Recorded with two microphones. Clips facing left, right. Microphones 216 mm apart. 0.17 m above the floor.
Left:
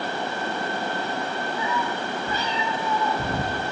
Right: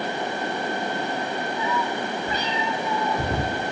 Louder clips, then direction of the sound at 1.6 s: Right 2 dB; centre (ahead or behind).